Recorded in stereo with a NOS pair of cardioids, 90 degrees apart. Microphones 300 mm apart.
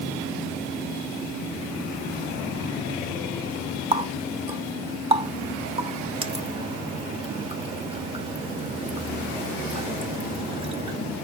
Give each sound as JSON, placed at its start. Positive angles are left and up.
{"t": 3.9, "sound": "a running tap", "azimuth_deg": -20, "distance_m": 1.0}